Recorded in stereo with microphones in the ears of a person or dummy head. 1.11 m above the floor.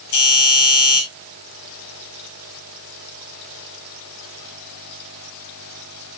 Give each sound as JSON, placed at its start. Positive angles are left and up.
{"t": 0.1, "sound": "a doorbell", "side_deg": 60, "distance_m": 8.0}